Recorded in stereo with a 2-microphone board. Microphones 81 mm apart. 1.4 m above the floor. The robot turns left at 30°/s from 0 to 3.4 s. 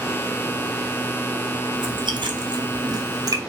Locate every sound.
1.8 s chewing: 70° right (ahead or behind), 0.5 m; by 3.4 s 45° right (ahead or behind), 0.5 m